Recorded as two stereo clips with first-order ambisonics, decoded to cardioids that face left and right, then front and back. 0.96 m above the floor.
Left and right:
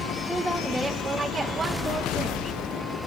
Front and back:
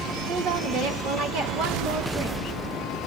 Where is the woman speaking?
175° left, 1.6 m; by 2.4 s 155° right, 2 m.